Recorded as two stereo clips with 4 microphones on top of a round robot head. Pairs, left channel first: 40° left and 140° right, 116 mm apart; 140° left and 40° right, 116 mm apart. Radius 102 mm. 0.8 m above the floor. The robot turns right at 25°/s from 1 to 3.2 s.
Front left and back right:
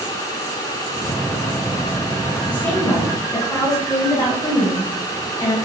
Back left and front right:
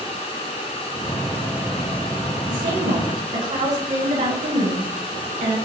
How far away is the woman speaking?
About 7 m.